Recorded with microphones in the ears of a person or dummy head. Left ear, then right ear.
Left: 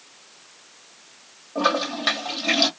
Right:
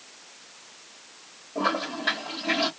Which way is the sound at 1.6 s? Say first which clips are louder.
Left 5 dB; 45° left (ahead or behind).